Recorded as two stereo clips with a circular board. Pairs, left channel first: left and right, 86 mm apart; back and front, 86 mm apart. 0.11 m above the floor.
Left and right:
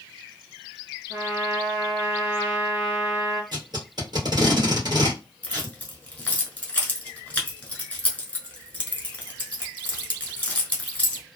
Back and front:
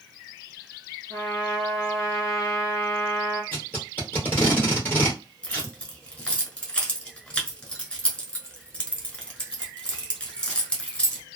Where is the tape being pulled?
115° right, 1.7 m.